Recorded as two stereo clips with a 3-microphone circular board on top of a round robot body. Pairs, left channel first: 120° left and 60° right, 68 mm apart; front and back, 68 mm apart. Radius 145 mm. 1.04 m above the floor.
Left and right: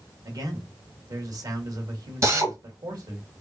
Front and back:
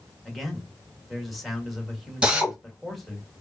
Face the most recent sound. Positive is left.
turn(degrees=-105)